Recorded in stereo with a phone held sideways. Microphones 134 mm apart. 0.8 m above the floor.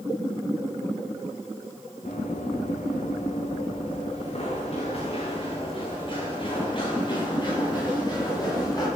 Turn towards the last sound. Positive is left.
turn(degrees=30)  # may be behind; listen again after turning